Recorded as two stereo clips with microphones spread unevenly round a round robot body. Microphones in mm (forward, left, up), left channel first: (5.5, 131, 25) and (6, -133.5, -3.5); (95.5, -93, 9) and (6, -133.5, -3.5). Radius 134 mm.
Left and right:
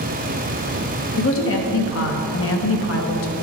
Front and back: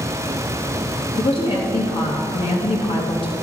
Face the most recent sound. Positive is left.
turn(degrees=55)